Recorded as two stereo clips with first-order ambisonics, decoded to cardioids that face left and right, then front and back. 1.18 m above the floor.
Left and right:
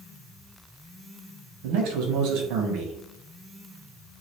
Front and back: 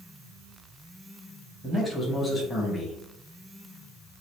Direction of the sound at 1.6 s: 85° right.